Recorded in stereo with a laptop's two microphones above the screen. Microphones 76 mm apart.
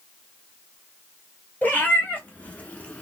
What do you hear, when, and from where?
1.6 s a cat meowing: 20° left (ahead or behind), 1.6 m; by 3.0 s 15° left (ahead or behind), 1.0 m